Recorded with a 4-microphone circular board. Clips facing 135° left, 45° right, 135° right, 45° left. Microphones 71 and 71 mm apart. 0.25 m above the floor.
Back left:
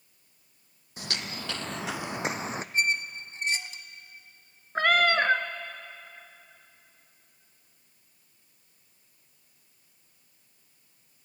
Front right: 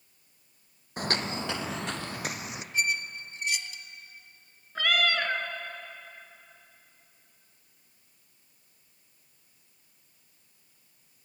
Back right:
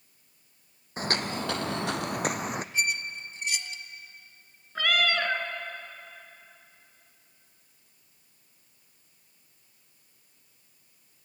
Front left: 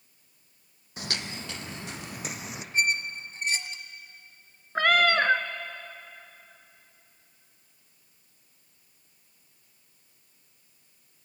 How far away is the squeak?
About 1.0 m.